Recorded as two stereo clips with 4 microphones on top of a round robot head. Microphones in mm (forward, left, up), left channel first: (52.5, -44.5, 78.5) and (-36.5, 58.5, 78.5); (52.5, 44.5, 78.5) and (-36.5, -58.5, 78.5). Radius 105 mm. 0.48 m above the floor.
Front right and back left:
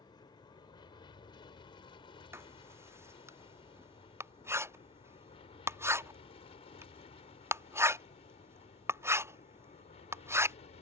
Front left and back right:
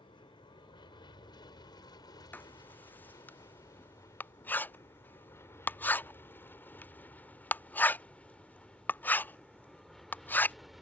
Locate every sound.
0.0 s an aircraft: 5° left; by 10.8 s 45° right
2.3 s writing: 100° left